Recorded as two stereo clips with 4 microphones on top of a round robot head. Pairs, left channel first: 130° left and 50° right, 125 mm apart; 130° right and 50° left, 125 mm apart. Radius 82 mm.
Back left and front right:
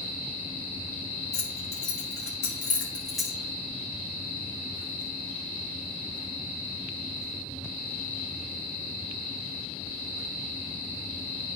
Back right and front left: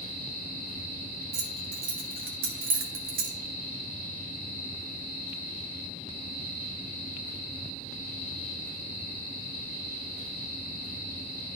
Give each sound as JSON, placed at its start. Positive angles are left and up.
{"t": 1.3, "sound": "keys jangling", "azimuth_deg": 65, "distance_m": 1.5}